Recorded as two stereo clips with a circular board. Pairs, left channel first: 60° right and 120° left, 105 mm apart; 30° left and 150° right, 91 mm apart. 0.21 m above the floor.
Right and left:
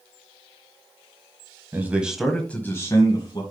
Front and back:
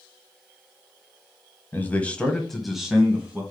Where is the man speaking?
75° left, 1.5 m; by 3.4 s 80° right, 1.8 m.